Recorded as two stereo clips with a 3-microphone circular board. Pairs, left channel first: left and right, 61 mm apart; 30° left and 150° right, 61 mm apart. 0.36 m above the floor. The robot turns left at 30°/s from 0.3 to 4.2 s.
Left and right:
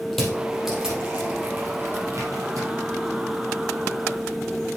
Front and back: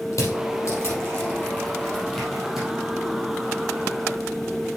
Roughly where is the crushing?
Ahead.